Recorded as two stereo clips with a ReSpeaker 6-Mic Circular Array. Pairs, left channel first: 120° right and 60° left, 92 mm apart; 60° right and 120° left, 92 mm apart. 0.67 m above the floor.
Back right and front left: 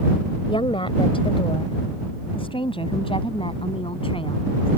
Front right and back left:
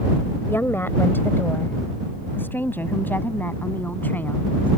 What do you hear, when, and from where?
0.5 s a woman speaking: 125° right; by 4.7 s 130° right